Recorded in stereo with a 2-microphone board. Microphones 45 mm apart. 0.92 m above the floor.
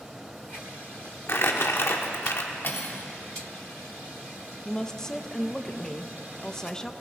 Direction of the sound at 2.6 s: 50° left (ahead or behind).